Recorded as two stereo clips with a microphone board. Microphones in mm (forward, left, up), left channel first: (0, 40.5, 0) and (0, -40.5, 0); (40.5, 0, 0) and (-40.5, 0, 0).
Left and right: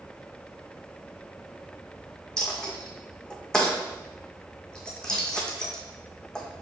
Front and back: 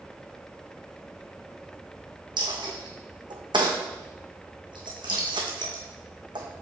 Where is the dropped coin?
170° left, 1.7 m.